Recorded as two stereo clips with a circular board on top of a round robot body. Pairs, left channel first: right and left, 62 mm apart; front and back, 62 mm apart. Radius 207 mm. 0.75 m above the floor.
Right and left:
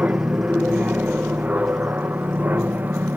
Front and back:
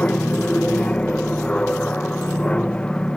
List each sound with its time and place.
0.0 s an aircraft: 50° left; by 3.2 s 65° left